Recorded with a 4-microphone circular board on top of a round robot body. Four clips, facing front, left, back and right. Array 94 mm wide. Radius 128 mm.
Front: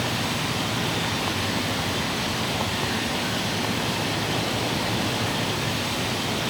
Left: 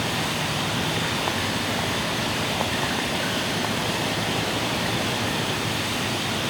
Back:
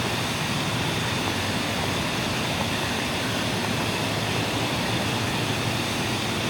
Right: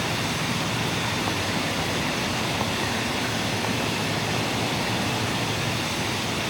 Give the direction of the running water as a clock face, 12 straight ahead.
9 o'clock.